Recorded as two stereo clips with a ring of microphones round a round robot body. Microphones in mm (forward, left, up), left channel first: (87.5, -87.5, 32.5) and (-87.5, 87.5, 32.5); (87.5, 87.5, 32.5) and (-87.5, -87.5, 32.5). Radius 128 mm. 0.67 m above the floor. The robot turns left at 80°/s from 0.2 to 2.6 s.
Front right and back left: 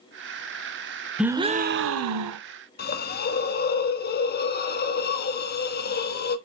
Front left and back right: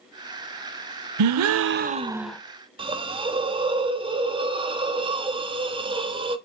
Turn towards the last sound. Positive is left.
turn(degrees=-75)